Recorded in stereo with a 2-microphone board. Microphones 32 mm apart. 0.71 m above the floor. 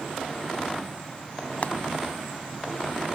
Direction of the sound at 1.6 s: 50° left (ahead or behind).